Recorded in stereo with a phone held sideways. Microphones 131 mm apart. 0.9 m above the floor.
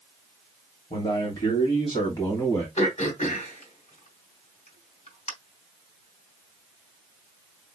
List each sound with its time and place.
0.9 s a man speaking: 45° left (ahead or behind), 3 m; by 2.7 s 30° left (ahead or behind), 2.5 m
2.8 s throat clearing: 60° left (ahead or behind), 3 m